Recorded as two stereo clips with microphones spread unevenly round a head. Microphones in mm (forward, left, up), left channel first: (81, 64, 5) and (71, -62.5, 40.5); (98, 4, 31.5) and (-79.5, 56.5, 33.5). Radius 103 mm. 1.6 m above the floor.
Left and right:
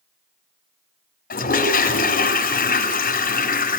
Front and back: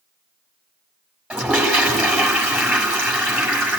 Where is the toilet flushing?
80° left, 6.5 m.